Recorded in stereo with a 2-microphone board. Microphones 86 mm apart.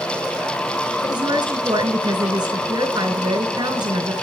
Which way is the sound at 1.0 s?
55° right (ahead or behind).